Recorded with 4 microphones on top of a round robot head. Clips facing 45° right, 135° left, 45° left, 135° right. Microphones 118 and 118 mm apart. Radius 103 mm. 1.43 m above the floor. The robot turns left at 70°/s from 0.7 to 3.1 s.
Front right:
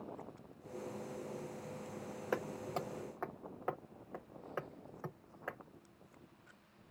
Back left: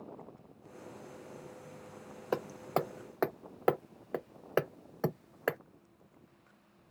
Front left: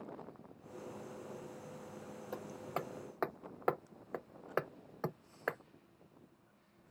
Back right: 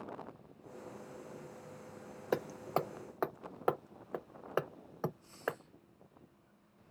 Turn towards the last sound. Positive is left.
turn(degrees=145)